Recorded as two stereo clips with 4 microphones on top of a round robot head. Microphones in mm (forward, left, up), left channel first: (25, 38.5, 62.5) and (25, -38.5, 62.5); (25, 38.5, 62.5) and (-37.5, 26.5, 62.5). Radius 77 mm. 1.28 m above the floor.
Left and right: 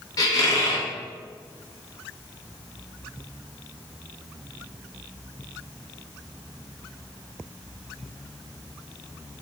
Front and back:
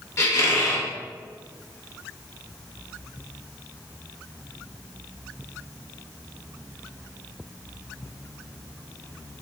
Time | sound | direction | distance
0.2 | a squeak | 55° left | 0.8 m